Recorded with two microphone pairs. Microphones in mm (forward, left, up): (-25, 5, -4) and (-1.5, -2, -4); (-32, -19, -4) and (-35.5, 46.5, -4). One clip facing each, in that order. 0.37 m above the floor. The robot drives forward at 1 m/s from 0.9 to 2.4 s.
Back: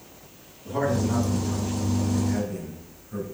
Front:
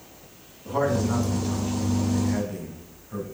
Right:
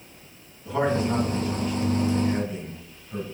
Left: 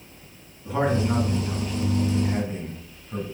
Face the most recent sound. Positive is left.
turn(degrees=40)